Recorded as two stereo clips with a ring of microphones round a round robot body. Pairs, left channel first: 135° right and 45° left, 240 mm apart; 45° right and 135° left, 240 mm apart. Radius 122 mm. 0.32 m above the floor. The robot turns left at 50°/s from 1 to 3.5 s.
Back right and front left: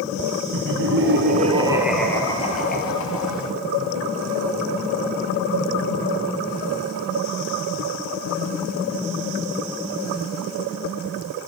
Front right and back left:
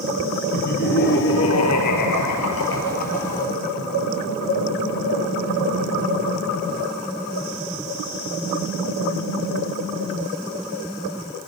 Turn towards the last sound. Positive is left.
turn(degrees=-120)